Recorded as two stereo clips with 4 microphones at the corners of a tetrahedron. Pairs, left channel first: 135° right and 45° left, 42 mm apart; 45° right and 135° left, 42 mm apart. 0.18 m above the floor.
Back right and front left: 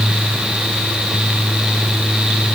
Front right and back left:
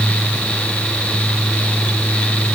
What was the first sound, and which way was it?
Only background noise.